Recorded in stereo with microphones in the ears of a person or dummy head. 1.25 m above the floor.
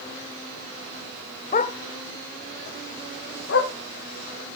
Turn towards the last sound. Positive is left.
turn(degrees=55)  # may be behind; listen again after turning